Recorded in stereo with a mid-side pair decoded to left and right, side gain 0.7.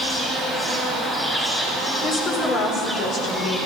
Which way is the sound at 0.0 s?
10° left.